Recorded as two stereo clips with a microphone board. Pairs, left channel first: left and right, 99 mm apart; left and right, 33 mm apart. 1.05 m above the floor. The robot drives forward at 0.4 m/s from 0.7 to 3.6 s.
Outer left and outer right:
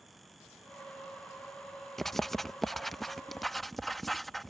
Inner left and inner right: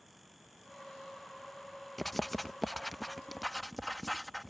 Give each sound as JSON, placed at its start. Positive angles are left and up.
{"t": 2.0, "sound": "writing", "side_deg": 5}